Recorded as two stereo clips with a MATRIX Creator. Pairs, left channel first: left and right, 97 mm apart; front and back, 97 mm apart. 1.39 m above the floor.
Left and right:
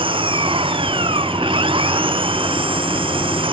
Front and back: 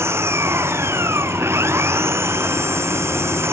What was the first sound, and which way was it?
An engine running, 115° right.